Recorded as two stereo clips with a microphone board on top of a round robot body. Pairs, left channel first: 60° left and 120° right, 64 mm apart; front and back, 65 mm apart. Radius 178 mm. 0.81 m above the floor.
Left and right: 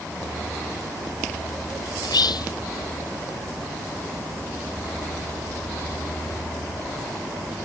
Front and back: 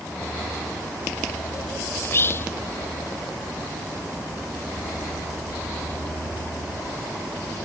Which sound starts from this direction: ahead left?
Whispering, at 2.0 s.